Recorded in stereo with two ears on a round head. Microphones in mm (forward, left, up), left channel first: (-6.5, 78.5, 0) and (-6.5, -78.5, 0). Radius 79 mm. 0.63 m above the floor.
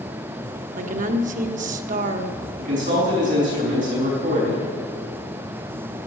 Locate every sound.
0.8 s a woman speaking: 45° right (ahead or behind), 1.0 m
2.6 s a man speaking: 45° right (ahead or behind), 5 m